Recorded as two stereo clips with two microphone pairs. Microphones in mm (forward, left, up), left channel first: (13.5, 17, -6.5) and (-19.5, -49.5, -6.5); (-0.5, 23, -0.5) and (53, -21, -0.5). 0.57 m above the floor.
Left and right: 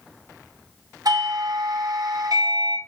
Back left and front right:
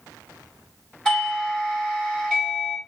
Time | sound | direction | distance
1.1 | a doorbell | 140° right | 4 m